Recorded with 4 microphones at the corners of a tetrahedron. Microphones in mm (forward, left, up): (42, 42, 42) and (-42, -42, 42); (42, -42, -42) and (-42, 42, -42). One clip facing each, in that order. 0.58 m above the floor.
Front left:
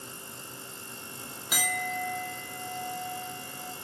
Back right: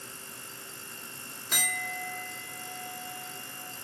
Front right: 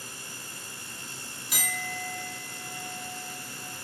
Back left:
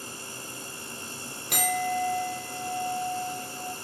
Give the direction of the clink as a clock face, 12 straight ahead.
8 o'clock.